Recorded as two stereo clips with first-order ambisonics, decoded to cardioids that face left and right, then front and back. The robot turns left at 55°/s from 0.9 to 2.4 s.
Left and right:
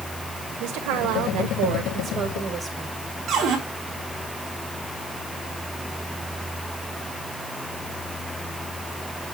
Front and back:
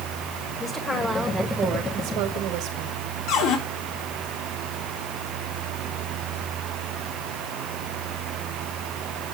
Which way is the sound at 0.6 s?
80° right.